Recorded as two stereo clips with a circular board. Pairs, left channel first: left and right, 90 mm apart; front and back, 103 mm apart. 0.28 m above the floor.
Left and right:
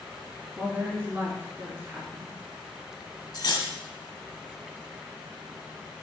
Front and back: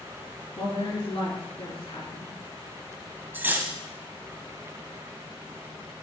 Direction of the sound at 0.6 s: 20° right.